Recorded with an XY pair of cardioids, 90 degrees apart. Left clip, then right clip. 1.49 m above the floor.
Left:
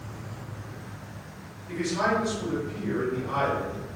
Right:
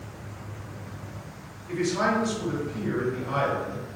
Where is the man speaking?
50° right, 1.7 m.